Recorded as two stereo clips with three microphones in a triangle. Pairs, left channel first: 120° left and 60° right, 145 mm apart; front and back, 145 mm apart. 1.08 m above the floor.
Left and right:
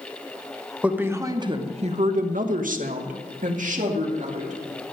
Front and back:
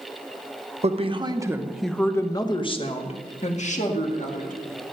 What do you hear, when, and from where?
0.8 s a woman speaking: 140° right, 1.1 m; by 4.6 s 25° right, 2.5 m